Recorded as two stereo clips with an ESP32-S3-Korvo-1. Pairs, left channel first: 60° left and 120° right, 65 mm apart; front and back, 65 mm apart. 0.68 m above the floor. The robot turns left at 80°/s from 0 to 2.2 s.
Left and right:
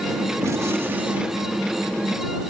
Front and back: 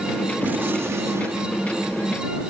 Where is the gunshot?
125° right; by 2.2 s 95° left.